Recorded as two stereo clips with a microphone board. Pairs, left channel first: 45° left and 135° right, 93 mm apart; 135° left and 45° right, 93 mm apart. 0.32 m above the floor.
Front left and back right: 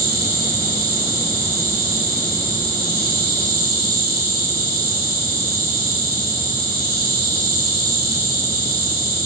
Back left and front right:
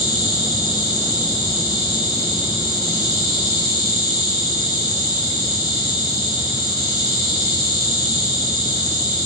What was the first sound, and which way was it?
An insect, 165° left.